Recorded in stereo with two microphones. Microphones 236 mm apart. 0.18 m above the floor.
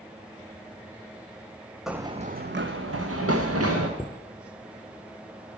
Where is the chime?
5° left (ahead or behind), 0.8 m.